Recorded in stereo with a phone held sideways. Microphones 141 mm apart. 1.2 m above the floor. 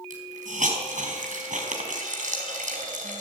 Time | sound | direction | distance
0.1 | a hiss | 70° right (ahead or behind) | 4.5 m